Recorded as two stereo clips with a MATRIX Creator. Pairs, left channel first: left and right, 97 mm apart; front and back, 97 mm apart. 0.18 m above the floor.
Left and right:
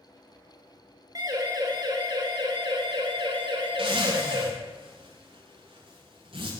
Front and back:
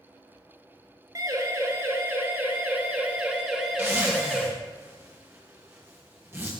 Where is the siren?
135° right, 4 m; by 4.5 s 90° right, 4.5 m.